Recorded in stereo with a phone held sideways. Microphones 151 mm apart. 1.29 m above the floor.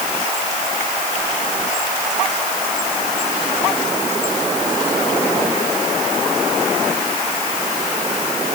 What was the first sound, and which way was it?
Only background noise.